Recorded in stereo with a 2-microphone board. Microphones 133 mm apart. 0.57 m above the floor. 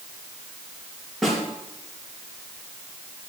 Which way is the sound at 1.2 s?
Centre (ahead or behind).